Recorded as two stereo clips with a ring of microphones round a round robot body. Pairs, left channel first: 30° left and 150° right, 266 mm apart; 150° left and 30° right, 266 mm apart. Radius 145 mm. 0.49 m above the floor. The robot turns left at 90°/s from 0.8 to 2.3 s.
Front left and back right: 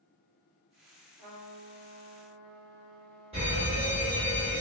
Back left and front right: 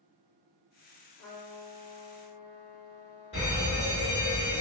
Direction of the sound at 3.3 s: Straight behind.